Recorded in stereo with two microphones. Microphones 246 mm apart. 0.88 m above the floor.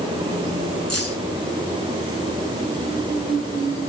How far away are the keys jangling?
About 8 m.